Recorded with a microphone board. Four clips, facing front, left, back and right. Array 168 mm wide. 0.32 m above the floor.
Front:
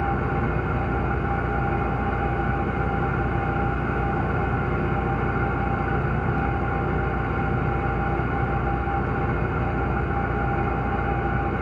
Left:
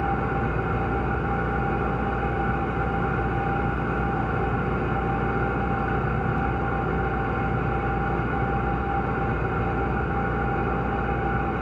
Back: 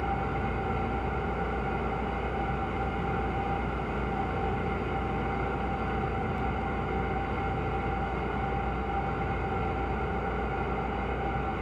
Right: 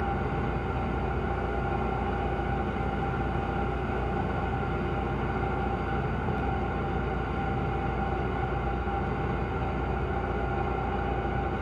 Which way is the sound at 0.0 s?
45° left.